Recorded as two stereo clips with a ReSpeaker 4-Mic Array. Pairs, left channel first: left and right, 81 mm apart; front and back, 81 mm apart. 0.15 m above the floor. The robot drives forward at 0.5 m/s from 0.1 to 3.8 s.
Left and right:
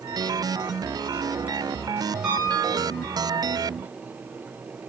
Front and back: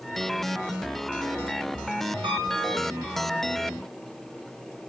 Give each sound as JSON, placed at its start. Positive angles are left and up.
{"t": 2.2, "sound": "a piano", "azimuth_deg": -165, "distance_m": 4.0}